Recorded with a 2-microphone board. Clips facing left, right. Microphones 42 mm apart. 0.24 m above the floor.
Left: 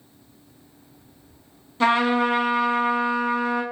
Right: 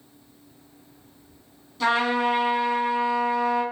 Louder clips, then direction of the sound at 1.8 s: Left 3 dB; 40° left (ahead or behind).